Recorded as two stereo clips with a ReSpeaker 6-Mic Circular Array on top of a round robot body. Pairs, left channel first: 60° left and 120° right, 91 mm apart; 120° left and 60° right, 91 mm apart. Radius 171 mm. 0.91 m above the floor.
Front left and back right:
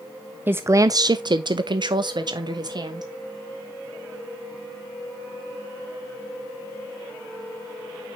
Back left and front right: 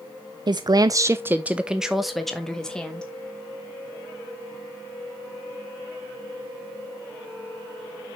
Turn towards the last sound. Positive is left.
turn(degrees=-160)